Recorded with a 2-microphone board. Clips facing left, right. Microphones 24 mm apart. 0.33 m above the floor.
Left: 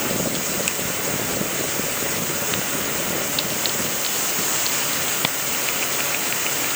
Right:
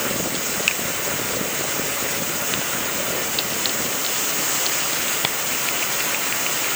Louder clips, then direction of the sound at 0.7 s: Right 4 dB; 30° right (ahead or behind).